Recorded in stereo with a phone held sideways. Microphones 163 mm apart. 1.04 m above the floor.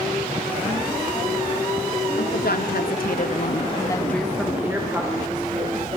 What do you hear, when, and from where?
2.1 s a woman speaking: 80° left, 2.5 m; by 6.0 s 35° right (ahead or behind), 3.5 m